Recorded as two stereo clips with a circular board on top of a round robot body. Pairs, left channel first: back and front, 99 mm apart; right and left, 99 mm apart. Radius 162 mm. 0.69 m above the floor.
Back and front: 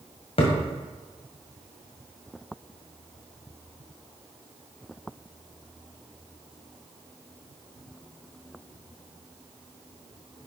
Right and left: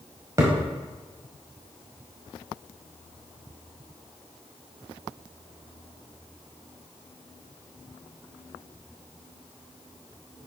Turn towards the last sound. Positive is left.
turn(degrees=150)